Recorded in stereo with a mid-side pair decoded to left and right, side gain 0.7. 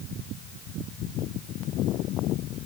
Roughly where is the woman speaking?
I don't hear a woman speaking.